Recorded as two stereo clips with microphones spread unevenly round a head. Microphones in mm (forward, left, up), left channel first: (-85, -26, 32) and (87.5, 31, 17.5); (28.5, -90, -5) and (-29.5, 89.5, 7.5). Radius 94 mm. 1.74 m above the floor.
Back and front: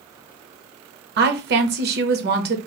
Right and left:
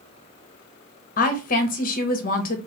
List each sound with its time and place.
1.2 s a woman speaking: 20° right, 0.7 m